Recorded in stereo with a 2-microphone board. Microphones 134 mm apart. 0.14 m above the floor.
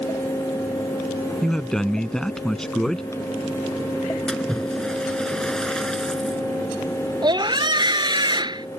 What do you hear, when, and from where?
1.4 s a man speaking: 5° left (ahead or behind)
4.3 s a splash: 5° left (ahead or behind)
7.2 s a scream: 35° right (ahead or behind)